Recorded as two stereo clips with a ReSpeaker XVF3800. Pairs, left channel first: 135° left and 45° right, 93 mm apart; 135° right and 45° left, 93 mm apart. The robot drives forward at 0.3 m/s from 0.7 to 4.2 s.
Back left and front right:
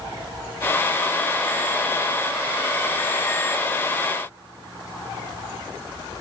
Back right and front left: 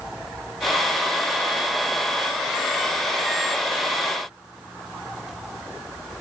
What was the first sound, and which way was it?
Only background noise.